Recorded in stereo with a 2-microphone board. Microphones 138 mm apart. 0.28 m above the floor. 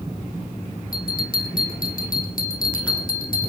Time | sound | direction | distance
0.9 | a bell | 90° left | 3 m